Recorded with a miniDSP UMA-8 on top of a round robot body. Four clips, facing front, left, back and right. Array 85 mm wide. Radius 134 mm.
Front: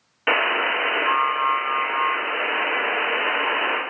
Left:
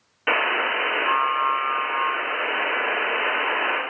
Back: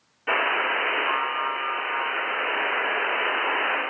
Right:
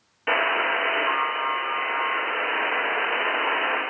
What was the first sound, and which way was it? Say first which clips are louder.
A buzzer: even, front 2 dB; 15° left.